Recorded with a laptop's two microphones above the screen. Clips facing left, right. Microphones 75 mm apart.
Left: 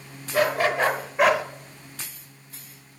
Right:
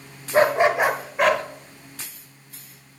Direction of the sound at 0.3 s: 35° right (ahead or behind).